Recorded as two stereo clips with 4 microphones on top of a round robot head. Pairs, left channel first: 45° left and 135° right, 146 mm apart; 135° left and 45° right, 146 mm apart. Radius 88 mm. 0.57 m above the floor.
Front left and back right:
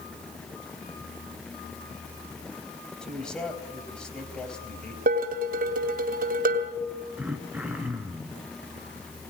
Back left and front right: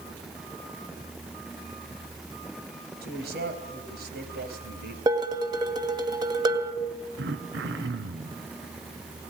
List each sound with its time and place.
3.0 s a man speaking: 40° right, 4 m
5.1 s dishes clattering: 110° right, 2.5 m
7.2 s throat clearing: 55° right, 2 m